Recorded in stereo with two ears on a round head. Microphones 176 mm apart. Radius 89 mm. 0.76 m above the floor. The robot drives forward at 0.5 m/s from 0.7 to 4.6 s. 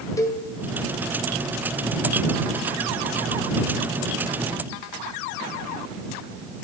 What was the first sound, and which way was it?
A cowbell, 15° left (ahead or behind).